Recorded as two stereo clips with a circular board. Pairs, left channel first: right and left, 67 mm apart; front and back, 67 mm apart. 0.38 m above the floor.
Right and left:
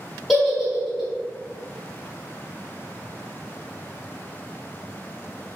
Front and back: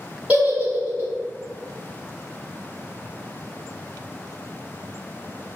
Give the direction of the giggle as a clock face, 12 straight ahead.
6 o'clock.